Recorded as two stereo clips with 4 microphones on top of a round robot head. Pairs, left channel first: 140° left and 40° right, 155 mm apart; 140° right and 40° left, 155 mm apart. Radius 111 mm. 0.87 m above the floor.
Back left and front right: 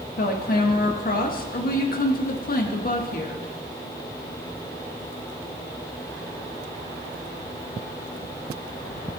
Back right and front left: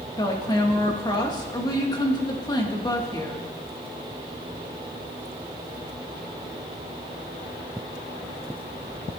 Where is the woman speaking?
160° left, 2.0 m.